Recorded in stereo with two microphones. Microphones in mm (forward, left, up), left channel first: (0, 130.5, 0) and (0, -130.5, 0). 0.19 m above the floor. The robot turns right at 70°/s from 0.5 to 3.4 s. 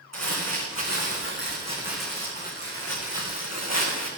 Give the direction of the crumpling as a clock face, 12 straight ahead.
4 o'clock.